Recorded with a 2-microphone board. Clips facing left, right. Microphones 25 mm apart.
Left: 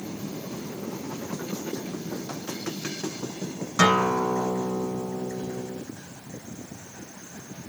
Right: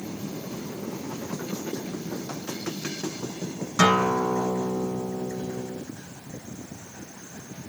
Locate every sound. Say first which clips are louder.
3.8 s a guitar: even; 5° left (ahead or behind), 1.2 m